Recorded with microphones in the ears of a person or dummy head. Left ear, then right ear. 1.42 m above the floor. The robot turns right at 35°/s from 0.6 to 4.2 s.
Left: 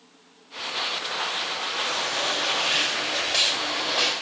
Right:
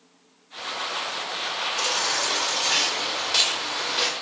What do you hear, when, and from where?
1.8 s a baby crying: 105° right, 5 m; by 4.1 s 25° right, 5 m